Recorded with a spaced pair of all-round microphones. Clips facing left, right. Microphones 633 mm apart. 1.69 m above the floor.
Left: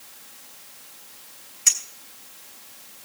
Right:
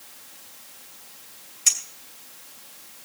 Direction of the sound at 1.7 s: 60° right (ahead or behind).